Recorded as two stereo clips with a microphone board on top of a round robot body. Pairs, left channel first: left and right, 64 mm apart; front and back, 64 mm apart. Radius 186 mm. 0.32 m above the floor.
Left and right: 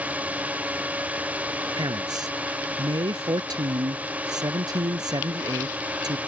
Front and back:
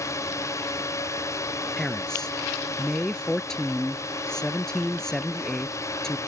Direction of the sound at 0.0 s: 25° right.